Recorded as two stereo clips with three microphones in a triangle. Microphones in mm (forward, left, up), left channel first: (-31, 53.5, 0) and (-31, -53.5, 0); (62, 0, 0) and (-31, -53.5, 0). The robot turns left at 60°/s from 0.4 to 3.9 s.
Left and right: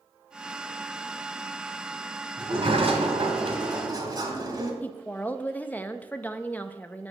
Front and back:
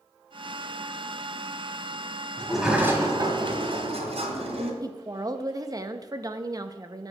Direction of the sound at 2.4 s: 50° right.